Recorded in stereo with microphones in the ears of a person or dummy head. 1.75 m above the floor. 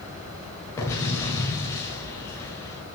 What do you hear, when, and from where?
0.8 s an explosion: 15° left (ahead or behind), 1.9 m